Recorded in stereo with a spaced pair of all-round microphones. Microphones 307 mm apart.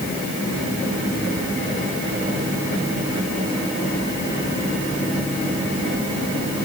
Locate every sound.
Only background noise.